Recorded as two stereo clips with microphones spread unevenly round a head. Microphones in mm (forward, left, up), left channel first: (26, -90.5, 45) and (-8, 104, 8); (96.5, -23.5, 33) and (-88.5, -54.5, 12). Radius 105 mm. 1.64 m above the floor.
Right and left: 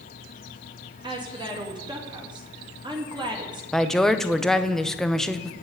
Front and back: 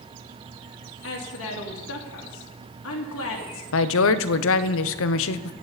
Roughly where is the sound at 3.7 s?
Ahead.